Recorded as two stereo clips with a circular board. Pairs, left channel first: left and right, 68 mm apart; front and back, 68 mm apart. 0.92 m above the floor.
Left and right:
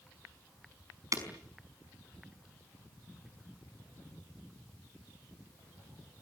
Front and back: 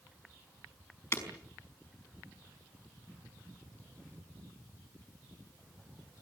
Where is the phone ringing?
No phone ringing in this recording.